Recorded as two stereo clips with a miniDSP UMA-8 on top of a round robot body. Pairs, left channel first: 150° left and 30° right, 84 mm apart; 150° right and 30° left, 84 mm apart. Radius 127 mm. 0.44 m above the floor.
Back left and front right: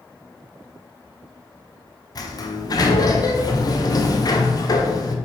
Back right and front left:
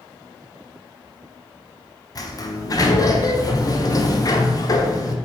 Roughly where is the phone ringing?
No phone ringing in this recording.